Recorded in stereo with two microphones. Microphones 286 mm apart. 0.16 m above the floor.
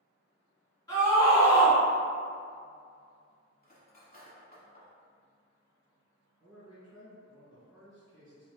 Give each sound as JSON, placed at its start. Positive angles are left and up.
{"t": 0.9, "sound": "a scream", "side_deg": 15, "distance_m": 1.8}
{"t": 3.6, "sound": "cutlery clinking", "side_deg": 30, "distance_m": 0.7}
{"t": 6.4, "sound": "a man speaking", "side_deg": -5, "distance_m": 1.9}